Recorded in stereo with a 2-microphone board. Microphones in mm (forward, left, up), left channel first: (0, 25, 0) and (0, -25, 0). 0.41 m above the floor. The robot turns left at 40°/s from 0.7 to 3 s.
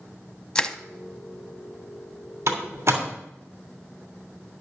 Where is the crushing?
15° left (ahead or behind), 0.6 m; by 0.8 s 20° left (ahead or behind), 0.6 m.